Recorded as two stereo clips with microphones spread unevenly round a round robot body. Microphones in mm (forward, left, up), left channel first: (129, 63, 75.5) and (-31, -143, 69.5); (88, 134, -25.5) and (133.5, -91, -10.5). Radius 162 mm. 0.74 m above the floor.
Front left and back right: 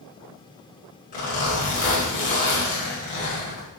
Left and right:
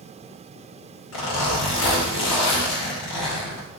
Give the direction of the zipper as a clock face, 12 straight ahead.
8 o'clock.